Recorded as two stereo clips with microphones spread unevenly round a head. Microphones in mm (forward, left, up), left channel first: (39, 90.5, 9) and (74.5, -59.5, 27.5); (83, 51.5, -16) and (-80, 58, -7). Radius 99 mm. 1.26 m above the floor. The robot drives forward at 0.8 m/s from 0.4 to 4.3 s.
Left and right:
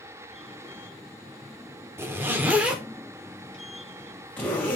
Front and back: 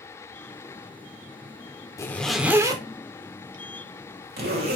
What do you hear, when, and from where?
2.0 s a zipper: 55° right, 0.9 m; by 4.8 s 170° right, 1.9 m